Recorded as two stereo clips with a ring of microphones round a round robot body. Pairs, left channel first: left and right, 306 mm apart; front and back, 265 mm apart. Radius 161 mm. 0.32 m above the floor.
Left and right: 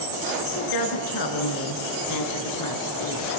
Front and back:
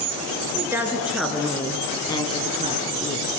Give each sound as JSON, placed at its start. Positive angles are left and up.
{"t": 0.6, "sound": "a woman speaking", "azimuth_deg": 100, "distance_m": 4.5}